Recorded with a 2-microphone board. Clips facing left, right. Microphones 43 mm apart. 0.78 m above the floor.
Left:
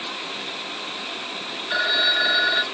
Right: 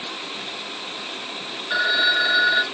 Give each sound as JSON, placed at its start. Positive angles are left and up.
{"t": 1.7, "sound": "a phone ringing", "side_deg": 5, "distance_m": 0.6}